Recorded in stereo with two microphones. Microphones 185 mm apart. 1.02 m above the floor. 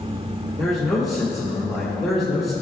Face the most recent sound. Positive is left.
turn(degrees=0)  # may be behind; listen again after turning